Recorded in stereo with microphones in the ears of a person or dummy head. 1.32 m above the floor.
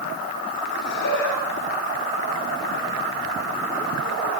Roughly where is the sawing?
I don't hear sawing.